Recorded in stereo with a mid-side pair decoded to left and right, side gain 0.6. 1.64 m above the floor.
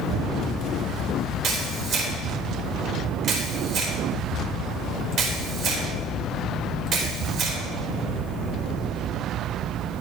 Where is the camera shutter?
55° right, 4 m.